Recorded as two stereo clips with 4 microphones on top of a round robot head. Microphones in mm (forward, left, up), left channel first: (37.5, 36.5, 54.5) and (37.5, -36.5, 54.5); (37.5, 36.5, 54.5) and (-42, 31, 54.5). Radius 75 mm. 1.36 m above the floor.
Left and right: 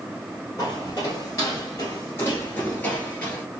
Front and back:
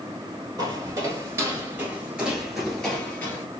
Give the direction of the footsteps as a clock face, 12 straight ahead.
7 o'clock.